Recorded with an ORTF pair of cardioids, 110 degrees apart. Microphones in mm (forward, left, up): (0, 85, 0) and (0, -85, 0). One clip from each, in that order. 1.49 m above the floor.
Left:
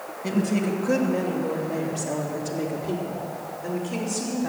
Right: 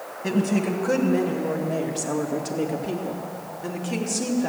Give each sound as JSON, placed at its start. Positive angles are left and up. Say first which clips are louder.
{"t": 0.2, "sound": "a woman speaking", "louder": "right 1 dB", "azimuth_deg": -15, "distance_m": 2.0}